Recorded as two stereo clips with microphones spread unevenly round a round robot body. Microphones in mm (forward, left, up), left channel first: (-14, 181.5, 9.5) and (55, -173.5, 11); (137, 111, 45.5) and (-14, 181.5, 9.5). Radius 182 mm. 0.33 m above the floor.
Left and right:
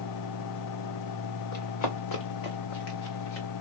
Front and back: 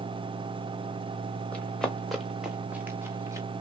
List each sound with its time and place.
1.5 s running footsteps: 55° left, 2.5 m; by 3.5 s 85° left, 2.0 m